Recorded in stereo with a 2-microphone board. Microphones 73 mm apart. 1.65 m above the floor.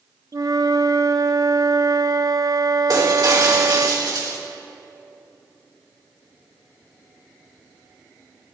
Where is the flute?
55° right (ahead or behind), 0.5 m.